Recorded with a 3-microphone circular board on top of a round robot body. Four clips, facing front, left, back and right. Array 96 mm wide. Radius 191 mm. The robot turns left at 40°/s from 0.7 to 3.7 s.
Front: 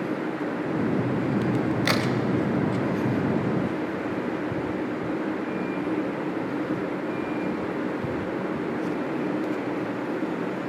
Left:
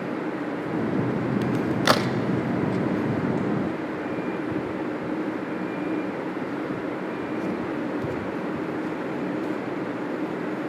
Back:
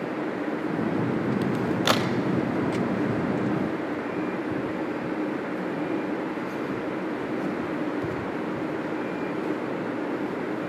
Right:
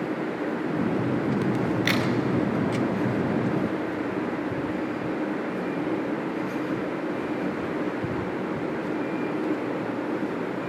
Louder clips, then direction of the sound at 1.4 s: Left 2 dB, even; 125° left.